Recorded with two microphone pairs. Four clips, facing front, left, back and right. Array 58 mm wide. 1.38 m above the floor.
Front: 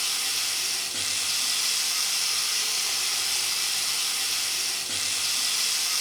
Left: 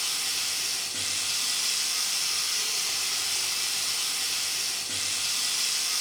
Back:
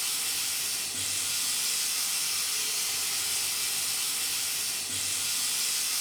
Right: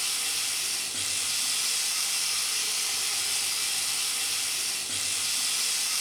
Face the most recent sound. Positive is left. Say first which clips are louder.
# left 1 dB, front 5 dB
turn(degrees=0)